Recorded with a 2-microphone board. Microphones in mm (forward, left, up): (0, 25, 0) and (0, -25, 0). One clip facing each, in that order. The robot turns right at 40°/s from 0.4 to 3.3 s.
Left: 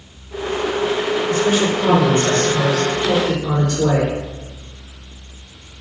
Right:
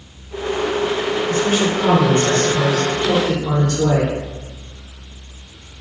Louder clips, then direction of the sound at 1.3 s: Left 1 dB; 50° right.